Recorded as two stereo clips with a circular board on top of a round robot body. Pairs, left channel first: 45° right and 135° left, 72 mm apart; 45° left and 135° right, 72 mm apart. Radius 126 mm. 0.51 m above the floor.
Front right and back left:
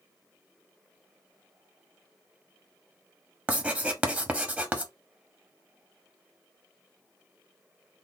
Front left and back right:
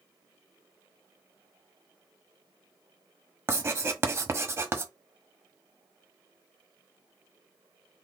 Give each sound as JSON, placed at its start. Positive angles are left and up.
{"t": 3.5, "sound": "writing", "azimuth_deg": -165, "distance_m": 1.2}